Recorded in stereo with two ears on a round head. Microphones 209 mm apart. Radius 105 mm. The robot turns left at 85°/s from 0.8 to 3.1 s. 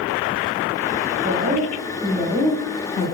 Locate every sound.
1.2 s a woman speaking: 80° right, 0.8 m; by 3.1 s 125° left, 0.8 m